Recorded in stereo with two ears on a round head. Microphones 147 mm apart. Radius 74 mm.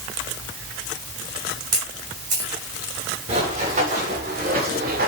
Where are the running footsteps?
45° right (ahead or behind), 7 m; by 5.1 s 65° right (ahead or behind), 6 m.